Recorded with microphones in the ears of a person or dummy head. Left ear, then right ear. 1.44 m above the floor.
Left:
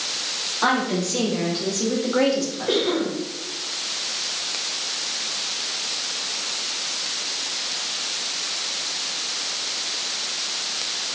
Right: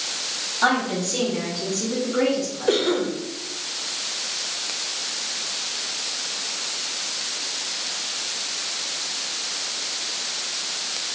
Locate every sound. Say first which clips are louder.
0.6 s a woman speaking: right 1 dB; 10° right (ahead or behind), 1.2 m; by 2.9 s 60° left (ahead or behind), 1.1 m
2.7 s a cough: right 1 dB; 65° right (ahead or behind), 0.6 m